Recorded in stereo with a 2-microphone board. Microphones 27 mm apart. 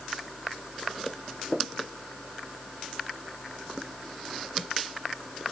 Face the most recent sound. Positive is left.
No sound to turn to.